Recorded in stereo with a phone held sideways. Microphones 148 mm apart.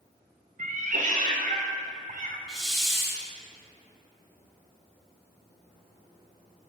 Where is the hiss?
Centre (ahead or behind), 1.1 m.